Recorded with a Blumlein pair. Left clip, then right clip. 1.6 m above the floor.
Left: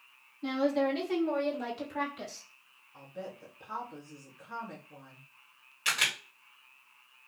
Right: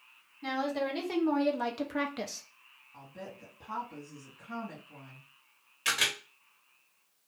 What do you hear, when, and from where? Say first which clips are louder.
0.4 s a woman speaking: left 3 dB; 15° right, 1.7 m; by 2.5 s 50° right, 0.5 m
2.9 s a woman speaking: left 3 dB; 20° right, 1.5 m
5.8 s a camera shutter: even; 5° right, 1.7 m